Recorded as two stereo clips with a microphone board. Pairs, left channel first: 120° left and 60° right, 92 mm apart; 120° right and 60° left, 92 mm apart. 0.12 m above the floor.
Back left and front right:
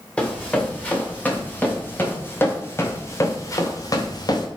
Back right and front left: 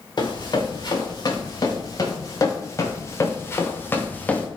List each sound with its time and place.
0.2 s running footsteps: 165° right, 3.5 m; by 4.5 s 165° left, 1.7 m